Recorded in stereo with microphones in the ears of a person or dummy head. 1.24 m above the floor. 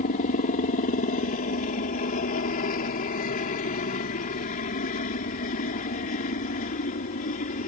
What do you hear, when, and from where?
0.0 s a helicopter: 40° left (ahead or behind)